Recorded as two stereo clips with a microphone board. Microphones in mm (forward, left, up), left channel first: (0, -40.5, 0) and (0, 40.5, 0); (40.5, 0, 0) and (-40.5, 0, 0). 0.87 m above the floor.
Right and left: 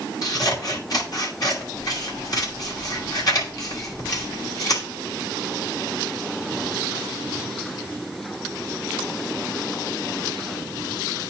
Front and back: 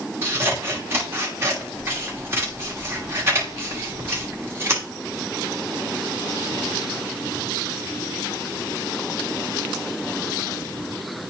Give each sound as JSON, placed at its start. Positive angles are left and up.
{"t": 0.2, "sound": "scissors", "azimuth_deg": -125, "distance_m": 1.5}